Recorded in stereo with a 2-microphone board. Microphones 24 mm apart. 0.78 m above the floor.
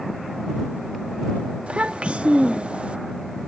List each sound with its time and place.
1.7 s a child speaking: 60° right (ahead or behind)